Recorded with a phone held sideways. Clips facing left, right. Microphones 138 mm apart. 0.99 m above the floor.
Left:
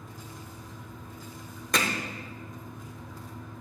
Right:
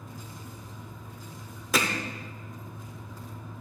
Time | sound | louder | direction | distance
0.0 | a fan | right 1 dB | 5° right (ahead or behind) | 2.5 m
1.7 | hammering | right 1 dB | 5° right (ahead or behind) | 0.8 m